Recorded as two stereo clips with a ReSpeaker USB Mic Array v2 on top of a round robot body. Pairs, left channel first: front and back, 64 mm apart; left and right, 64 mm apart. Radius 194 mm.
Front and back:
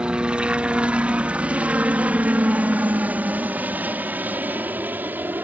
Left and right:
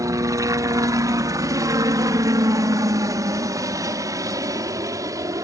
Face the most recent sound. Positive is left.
turn(degrees=-120)